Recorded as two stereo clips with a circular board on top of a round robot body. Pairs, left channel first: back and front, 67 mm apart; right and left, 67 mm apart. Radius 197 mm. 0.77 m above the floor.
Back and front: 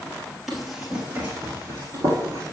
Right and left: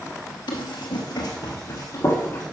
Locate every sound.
0.5 s running footsteps: 90° right, 1.1 m; by 2.4 s 30° right, 1.6 m